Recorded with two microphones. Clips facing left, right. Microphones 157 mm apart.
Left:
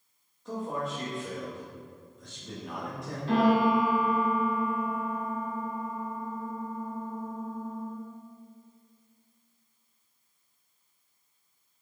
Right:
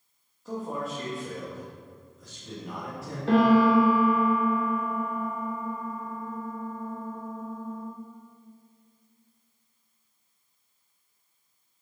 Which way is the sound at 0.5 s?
5° right (ahead or behind).